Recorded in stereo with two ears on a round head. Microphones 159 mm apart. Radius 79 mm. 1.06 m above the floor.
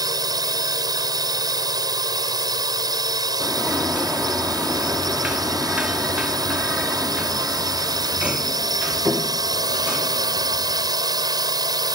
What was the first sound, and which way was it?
A drone, 20° right (ahead or behind).